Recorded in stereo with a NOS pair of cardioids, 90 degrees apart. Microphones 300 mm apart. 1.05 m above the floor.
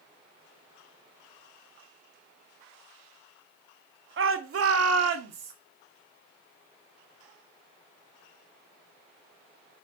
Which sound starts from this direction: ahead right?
A shout, at 4.2 s.